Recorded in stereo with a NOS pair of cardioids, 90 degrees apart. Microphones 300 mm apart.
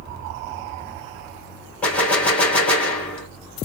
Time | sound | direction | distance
1.8 | a gunshot | 5° left | 1.9 m